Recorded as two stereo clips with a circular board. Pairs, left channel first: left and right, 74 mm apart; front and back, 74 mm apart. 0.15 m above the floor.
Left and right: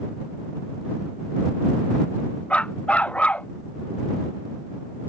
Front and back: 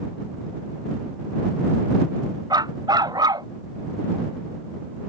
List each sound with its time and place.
2.5 s a dog barking: 160° left